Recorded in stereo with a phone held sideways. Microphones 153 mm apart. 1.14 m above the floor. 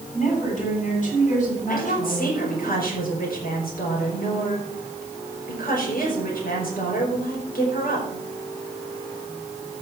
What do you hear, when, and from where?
0.1 s a woman speaking: 55° left (ahead or behind), 9 m
1.7 s a woman speaking: 75° left (ahead or behind), 5 m